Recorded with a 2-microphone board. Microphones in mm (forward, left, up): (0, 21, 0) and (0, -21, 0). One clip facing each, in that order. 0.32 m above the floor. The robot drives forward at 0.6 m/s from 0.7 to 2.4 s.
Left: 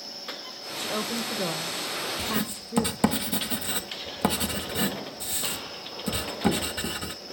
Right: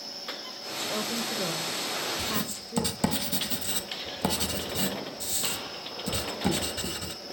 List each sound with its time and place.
0.8 s a woman speaking: 15° left (ahead or behind), 1.0 m
2.2 s writing: 25° left (ahead or behind), 1.2 m; by 7.1 s 20° left (ahead or behind), 1.3 m